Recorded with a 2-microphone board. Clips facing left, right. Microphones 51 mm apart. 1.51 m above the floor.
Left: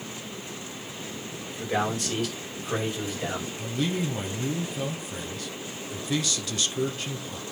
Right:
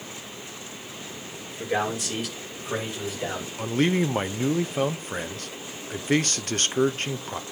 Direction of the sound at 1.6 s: 15° right (ahead or behind).